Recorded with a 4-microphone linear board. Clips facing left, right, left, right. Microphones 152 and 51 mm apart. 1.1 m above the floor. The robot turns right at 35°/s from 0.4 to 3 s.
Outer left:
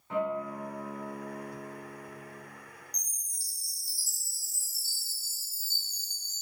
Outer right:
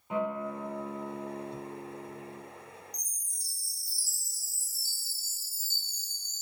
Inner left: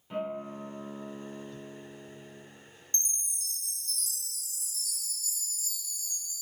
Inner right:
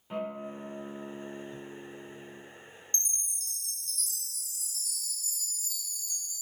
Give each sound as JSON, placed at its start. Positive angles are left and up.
{"t": 0.1, "sound": "a guitar", "azimuth_deg": -165, "distance_m": 1.8}
{"t": 2.9, "sound": "a chime", "side_deg": -45, "distance_m": 1.6}